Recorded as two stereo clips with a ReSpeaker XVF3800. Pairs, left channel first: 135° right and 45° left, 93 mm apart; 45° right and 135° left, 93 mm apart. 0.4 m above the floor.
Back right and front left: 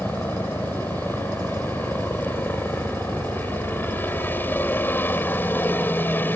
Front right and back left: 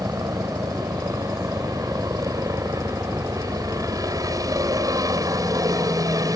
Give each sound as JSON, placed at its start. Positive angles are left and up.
{"t": 0.0, "sound": "a helicopter", "azimuth_deg": 165}